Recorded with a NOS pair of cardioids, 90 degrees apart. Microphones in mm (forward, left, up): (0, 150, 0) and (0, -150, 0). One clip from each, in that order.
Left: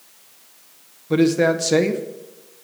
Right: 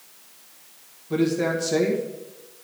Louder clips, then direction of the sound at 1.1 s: Left 6 dB; 45° left.